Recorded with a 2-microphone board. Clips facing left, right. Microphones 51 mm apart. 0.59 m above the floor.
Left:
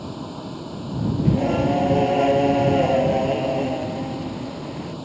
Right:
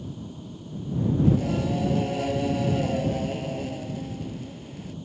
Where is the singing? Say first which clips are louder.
Left 4 dB; 40° left (ahead or behind).